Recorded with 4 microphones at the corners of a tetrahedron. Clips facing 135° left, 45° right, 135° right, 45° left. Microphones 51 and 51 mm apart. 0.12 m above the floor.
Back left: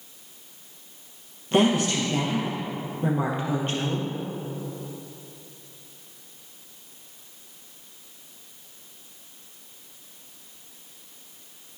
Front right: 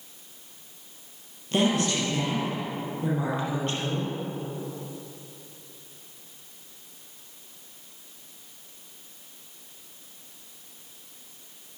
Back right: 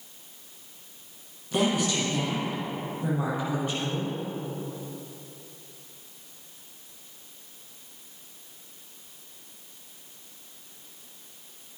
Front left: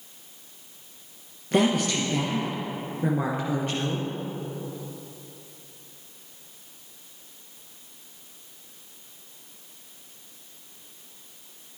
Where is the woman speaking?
70° left, 3 m.